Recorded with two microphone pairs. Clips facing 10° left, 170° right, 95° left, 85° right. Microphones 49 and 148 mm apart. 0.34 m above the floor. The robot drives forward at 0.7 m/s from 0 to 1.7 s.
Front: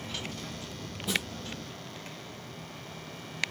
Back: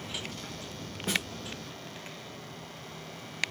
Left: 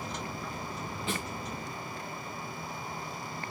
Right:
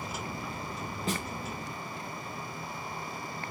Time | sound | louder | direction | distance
1.1 | a snare drum | even, right 2 dB | 135° right | 5 m